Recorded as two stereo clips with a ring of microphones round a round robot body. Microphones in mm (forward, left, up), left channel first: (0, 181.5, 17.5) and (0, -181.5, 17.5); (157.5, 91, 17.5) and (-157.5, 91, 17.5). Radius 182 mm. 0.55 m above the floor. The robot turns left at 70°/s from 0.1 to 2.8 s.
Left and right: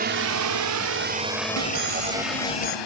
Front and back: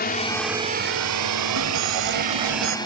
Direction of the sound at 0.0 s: 40° right.